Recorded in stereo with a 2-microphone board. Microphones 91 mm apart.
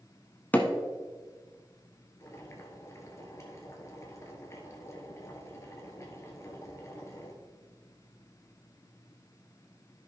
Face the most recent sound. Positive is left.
turn(degrees=35)  # may be behind; listen again after turning